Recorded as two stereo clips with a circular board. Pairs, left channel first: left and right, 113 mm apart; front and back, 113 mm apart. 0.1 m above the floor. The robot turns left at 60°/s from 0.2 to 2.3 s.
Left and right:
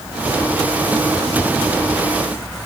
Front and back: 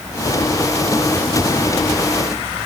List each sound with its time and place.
Only background noise.